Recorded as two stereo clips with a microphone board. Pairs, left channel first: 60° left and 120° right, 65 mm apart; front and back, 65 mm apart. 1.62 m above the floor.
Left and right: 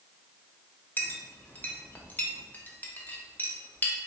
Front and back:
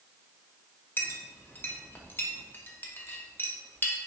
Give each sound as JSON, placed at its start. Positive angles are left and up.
{"t": 1.0, "sound": "a clink", "azimuth_deg": 20, "distance_m": 0.7}